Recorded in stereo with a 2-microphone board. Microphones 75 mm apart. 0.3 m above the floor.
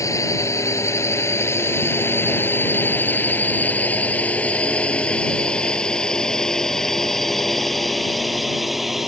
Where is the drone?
45° left (ahead or behind); by 9.1 s 5° right (ahead or behind).